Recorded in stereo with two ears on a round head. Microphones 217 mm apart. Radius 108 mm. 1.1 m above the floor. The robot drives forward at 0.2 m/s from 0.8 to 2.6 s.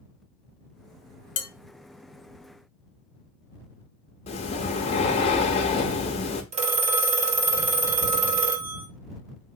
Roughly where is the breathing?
Left.